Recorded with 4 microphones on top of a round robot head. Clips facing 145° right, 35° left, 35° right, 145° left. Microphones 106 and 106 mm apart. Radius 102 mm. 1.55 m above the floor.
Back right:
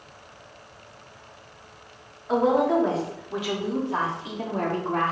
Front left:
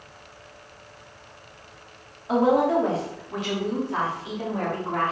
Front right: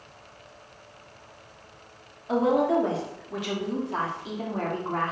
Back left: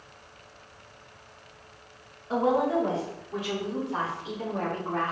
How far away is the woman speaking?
About 3 m.